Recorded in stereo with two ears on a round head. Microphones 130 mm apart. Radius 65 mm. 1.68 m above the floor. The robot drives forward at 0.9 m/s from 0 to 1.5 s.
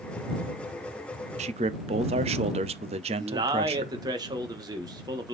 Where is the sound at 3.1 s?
30° right (ahead or behind), 1.7 m.